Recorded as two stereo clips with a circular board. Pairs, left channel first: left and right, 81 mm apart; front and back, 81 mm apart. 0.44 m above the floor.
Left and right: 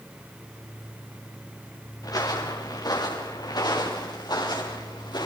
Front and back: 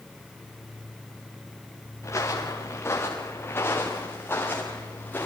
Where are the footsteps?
50° left, 4.5 m; by 5.3 s 65° left, 6.5 m.